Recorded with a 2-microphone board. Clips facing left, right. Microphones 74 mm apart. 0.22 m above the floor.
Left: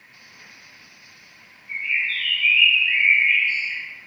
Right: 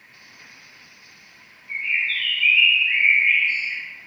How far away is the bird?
About 1.4 m.